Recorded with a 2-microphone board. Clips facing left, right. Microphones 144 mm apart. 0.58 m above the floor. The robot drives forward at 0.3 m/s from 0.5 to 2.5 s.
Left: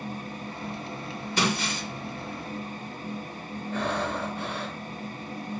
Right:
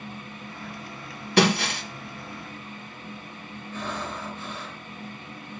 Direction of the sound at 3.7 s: 65° left (ahead or behind).